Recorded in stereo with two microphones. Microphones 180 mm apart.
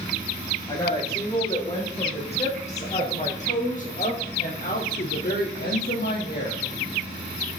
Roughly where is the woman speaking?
Left.